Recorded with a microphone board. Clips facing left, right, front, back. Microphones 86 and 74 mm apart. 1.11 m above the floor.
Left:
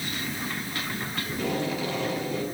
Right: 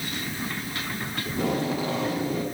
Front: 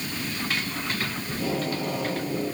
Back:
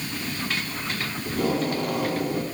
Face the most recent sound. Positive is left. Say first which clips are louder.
# right 3 dB, back 5 dB
turn(degrees=-145)